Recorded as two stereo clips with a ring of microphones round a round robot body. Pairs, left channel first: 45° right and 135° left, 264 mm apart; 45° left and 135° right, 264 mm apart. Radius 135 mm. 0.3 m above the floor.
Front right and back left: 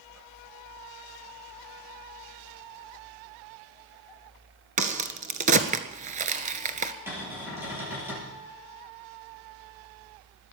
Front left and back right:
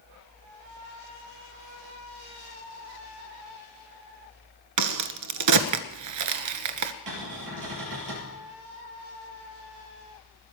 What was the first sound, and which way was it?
A crack, 160° right.